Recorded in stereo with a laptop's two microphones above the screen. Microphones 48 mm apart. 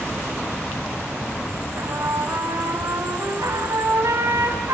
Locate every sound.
1.8 s a trumpet: 80° right, 4 m